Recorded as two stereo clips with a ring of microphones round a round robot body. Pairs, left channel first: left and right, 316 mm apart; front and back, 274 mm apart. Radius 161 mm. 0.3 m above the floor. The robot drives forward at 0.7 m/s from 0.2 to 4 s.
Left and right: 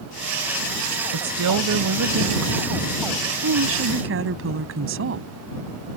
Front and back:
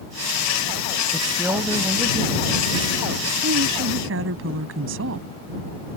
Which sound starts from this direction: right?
A woman speaking, at 1.1 s.